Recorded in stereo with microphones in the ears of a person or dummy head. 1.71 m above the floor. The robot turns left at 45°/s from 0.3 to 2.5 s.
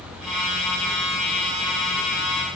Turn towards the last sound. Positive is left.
No sound to turn to.